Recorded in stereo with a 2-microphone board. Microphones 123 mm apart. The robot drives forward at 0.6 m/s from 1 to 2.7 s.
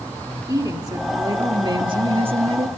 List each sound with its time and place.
0.5 s a woman speaking: 30° right (ahead or behind), 1.9 m; by 2.7 s 50° right (ahead or behind), 1.3 m